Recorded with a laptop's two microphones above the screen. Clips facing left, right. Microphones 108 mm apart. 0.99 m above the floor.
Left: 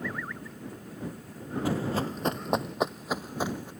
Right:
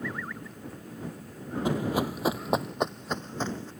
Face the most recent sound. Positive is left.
turn(degrees=15)  # may be behind; listen again after turning